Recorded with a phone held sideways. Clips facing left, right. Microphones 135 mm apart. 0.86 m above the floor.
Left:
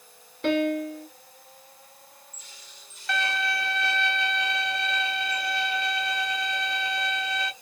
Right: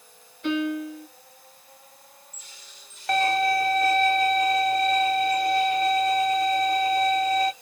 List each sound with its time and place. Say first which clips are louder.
0.4 s a piano: left 2 dB; 75° left (ahead or behind), 1.2 m
3.1 s a violin: right 8 dB; 50° right (ahead or behind), 0.5 m